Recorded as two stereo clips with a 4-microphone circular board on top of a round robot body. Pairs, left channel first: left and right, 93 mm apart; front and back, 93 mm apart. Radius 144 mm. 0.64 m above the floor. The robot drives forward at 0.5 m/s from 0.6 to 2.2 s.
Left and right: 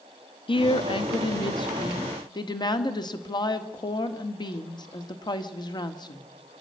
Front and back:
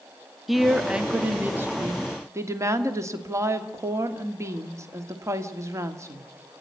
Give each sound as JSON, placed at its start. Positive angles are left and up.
{"t": 0.5, "sound": "a woman speaking", "azimuth_deg": 90, "distance_m": 1.4}